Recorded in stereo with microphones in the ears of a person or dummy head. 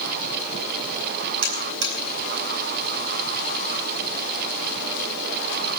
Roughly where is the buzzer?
Right.